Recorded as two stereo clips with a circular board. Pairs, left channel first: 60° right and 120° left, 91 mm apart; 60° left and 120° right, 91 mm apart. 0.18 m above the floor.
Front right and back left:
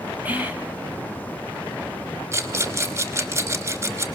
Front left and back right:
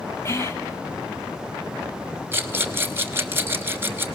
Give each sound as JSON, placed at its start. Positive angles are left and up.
{"t": 0.2, "sound": "whispering", "azimuth_deg": 70, "distance_m": 1.4}
{"t": 2.3, "sound": "a rattle", "azimuth_deg": 175, "distance_m": 1.1}